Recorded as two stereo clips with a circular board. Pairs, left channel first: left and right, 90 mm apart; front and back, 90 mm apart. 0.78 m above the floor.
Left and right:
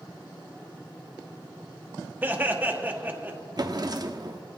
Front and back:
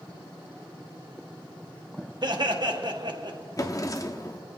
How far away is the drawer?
About 0.9 m.